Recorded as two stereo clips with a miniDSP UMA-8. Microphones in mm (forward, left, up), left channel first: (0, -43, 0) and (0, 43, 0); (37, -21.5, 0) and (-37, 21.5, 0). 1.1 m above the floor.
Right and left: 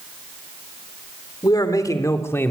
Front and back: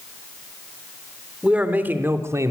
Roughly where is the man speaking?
Behind right.